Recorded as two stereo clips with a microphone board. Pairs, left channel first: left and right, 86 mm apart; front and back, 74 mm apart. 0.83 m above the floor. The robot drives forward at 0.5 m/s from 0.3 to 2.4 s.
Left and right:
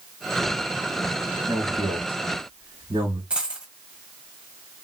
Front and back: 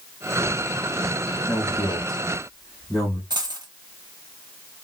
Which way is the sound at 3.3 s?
165° right.